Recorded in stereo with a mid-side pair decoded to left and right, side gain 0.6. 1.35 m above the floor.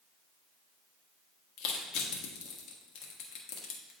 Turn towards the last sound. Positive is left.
turn(degrees=65)